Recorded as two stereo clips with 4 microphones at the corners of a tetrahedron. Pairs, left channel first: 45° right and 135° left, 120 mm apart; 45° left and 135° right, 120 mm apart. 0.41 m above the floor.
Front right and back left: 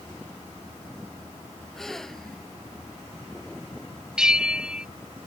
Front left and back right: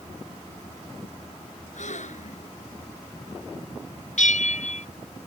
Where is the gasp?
40° left.